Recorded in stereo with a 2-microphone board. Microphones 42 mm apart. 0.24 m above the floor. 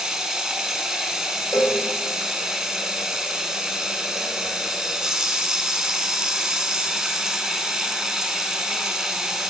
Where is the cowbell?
75° left (ahead or behind), 2 m.